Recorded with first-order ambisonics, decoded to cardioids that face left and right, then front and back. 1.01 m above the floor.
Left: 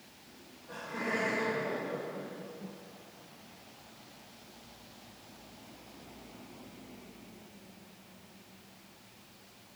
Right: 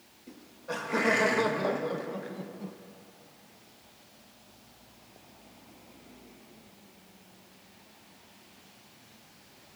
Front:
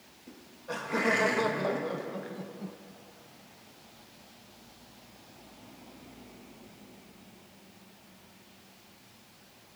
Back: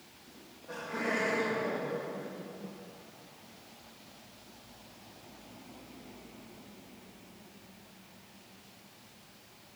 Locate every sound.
0.3 s laughter: 55° right, 1.7 m; by 2.8 s 45° right, 0.7 m